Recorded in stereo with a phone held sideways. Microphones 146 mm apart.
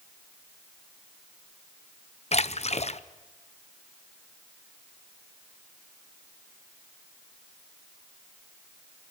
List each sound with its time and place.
2.3 s a splash: 50° left (ahead or behind), 0.6 m